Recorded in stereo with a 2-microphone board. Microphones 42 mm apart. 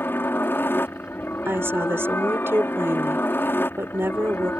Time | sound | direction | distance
0.0 | a helicopter | 60° left (ahead or behind) | ?
1.4 | a woman speaking | 70° right (ahead or behind) | ?